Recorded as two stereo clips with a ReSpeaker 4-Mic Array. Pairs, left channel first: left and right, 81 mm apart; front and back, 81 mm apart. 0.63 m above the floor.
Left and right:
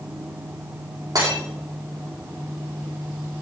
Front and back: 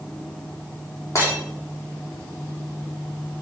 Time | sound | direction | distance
1.1 | breaking glass | 55° right | 5 m